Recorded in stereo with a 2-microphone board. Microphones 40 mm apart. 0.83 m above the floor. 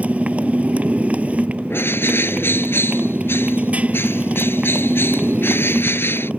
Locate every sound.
0.0 s a motorcycle: 35° right (ahead or behind)
1.7 s a bird: 65° left (ahead or behind)